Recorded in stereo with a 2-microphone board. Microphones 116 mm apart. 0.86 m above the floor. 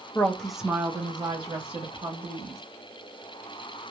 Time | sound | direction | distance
0.1 | a woman speaking | 20° left (ahead or behind) | 0.6 m